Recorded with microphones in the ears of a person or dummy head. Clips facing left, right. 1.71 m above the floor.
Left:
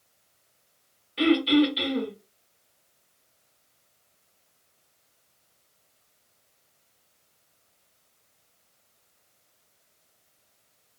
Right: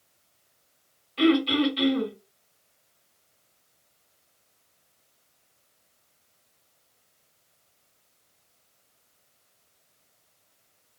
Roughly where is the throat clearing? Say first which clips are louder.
Left 1 dB; centre.